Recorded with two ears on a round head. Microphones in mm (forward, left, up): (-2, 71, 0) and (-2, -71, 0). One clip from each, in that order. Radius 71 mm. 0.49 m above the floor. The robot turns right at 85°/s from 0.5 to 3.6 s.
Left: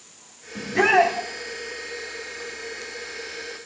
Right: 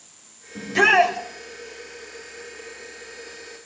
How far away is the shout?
About 2.5 m.